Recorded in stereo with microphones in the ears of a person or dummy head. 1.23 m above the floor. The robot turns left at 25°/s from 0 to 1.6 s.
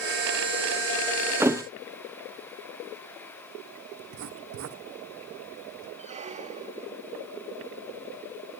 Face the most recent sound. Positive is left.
turn(degrees=-30)  # may be behind; listen again after turning